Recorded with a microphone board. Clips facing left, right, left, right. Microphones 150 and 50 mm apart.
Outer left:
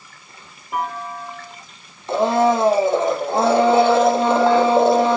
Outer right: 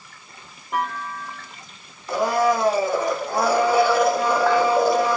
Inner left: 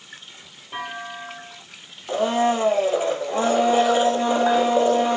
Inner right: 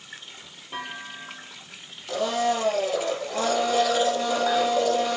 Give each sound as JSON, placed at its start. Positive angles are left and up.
{"t": 0.7, "sound": "a clunk", "side_deg": 5, "distance_m": 9.5}
{"t": 2.1, "sound": "a blender", "side_deg": 25, "distance_m": 3.0}